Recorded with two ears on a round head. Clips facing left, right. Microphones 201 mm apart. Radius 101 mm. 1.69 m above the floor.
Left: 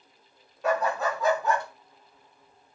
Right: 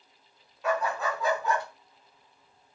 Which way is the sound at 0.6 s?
35° left (ahead or behind).